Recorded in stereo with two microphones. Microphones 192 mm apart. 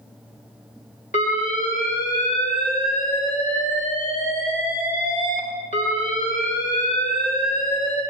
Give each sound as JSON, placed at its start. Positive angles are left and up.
{"t": 1.1, "sound": "an alarm", "side_deg": 40, "distance_m": 3.5}